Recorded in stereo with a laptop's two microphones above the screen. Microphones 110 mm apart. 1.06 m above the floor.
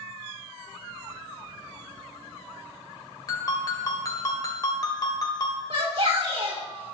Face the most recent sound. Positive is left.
turn(degrees=-55)  # may be behind; listen again after turning